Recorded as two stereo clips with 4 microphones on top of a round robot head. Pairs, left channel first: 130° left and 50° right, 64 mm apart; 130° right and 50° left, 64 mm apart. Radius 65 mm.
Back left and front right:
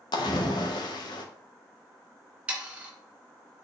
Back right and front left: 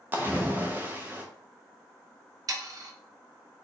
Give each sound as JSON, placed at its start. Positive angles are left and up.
{"t": 0.1, "sound": "a splash", "azimuth_deg": 115, "distance_m": 0.6}
{"t": 2.5, "sound": "sawing", "azimuth_deg": 20, "distance_m": 1.3}